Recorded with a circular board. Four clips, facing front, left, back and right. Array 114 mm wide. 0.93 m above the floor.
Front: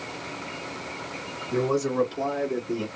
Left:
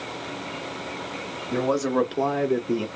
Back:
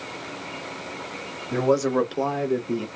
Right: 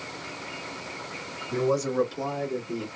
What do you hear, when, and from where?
1.5 s a man speaking: 145° left, 1.6 m; by 2.9 s 90° left, 0.9 m